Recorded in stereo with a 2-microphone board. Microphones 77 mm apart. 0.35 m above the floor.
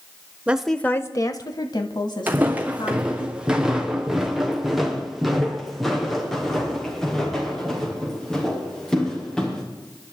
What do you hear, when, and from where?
0.5 s a woman speaking: 20° right (ahead or behind), 0.8 m; by 3.3 s 70° left (ahead or behind), 4 m
2.3 s footsteps: 25° right (ahead or behind), 1.4 m; by 9.6 s 10° left (ahead or behind), 5.5 m